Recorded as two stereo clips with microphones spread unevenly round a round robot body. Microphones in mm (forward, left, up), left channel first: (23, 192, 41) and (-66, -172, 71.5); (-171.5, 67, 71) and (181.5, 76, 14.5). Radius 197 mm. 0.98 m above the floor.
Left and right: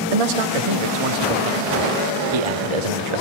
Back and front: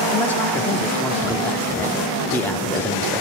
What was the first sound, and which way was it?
A man speaking, 90° right.